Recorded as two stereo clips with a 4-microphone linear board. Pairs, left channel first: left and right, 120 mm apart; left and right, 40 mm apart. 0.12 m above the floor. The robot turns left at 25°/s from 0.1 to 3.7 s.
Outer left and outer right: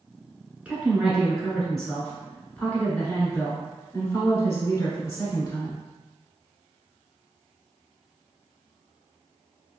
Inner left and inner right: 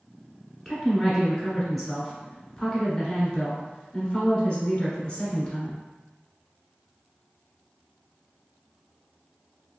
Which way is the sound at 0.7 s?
10° right (ahead or behind).